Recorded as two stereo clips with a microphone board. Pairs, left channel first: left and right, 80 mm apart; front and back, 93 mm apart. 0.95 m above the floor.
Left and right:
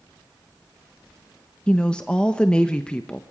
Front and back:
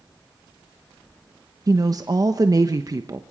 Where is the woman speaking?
160° left, 0.9 m.